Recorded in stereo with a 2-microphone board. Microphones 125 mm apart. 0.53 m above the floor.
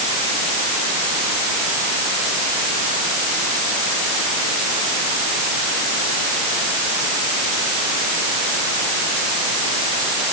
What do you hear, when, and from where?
Only background noise.